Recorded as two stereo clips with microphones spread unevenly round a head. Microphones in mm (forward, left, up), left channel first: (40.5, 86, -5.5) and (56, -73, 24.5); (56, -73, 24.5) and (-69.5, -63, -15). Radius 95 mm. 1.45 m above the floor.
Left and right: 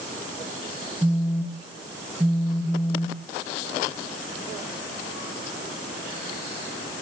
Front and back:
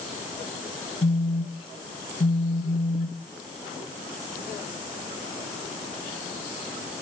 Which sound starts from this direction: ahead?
A phone buzzing, at 1.0 s.